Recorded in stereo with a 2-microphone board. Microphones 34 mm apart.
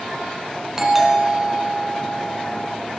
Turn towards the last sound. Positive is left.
turn(degrees=-15)  # may be behind; listen again after turning